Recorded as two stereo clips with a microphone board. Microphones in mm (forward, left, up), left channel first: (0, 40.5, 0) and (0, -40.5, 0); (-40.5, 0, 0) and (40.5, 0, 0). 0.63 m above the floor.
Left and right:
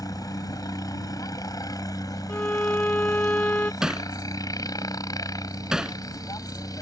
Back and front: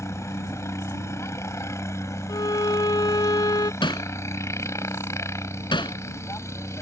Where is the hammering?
170° right.